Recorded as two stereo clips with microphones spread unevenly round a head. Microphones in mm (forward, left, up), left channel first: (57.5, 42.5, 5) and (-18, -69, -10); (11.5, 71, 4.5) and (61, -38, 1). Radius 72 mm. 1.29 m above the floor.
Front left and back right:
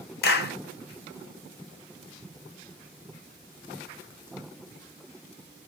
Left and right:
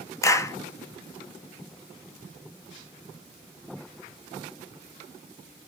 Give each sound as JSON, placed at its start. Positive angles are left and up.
{"t": 0.2, "sound": "a clap", "azimuth_deg": 50, "distance_m": 0.9}